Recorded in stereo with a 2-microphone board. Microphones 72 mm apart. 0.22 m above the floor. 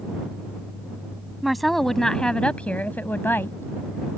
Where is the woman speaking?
Centre (ahead or behind); by 4.2 s 40° left (ahead or behind).